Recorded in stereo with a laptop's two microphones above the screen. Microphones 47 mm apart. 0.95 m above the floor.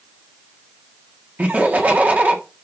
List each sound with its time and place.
1.4 s laughter: 35° right (ahead or behind), 1.4 m